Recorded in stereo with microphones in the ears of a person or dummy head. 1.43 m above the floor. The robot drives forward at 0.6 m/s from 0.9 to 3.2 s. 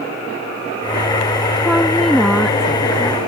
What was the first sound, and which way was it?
A woman speaking, centre (ahead or behind).